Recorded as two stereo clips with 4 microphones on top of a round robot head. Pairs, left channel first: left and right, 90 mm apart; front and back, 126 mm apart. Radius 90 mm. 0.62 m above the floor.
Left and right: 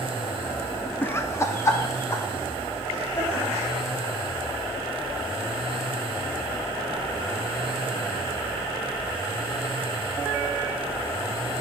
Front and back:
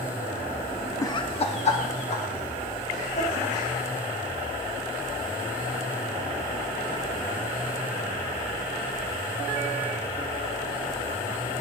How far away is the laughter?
About 0.6 m.